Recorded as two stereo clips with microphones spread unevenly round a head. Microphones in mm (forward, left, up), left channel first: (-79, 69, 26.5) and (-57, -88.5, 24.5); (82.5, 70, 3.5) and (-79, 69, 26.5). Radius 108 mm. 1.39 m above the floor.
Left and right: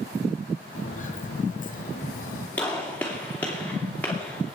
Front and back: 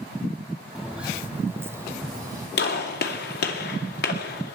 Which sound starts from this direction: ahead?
A gunshot, at 2.6 s.